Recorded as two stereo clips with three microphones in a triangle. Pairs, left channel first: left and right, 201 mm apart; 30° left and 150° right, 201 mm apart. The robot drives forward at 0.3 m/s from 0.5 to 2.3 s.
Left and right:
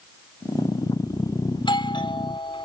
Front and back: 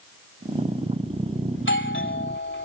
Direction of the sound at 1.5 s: 25° left.